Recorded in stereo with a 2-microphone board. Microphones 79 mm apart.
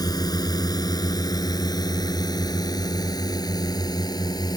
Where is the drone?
55° left (ahead or behind).